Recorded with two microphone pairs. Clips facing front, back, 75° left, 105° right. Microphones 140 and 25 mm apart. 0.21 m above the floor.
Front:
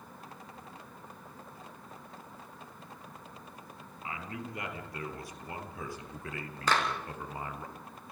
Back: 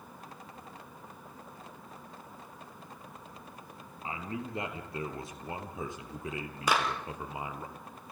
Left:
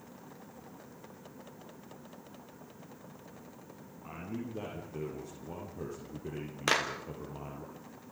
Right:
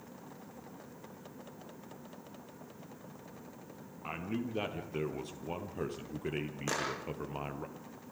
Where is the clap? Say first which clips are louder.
Back 1 dB, left 7 dB; 100° left, 3.5 m.